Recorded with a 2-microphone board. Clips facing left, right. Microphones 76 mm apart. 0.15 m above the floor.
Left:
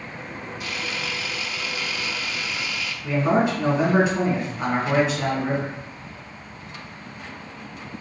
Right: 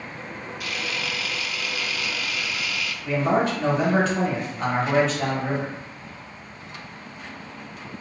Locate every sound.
0.6 s a camera shutter: 30° left (ahead or behind), 0.5 m
3.0 s a man speaking: 10° left (ahead or behind), 1.9 m